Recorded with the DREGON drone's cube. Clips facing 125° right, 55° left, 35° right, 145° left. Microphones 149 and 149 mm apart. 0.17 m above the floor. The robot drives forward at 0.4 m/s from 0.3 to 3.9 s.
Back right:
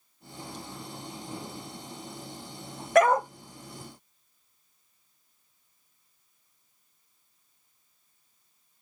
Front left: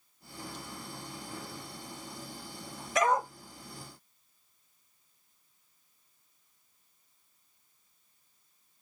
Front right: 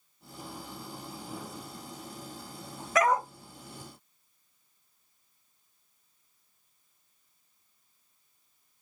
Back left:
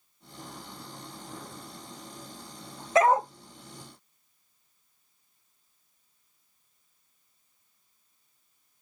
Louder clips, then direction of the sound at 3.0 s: Back right 7 dB, back left 4 dB; 150° right.